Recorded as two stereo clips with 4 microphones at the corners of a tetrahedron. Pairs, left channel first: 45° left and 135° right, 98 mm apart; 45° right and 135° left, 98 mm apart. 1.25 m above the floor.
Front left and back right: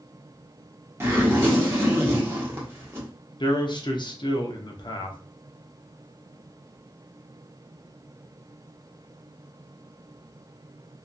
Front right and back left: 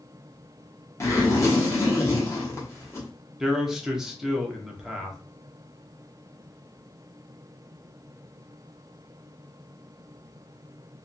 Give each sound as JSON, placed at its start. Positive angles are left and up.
{"t": 1.0, "sound": "a zipper", "azimuth_deg": -90, "distance_m": 1.0}
{"t": 3.4, "sound": "a man speaking", "azimuth_deg": 50, "distance_m": 0.6}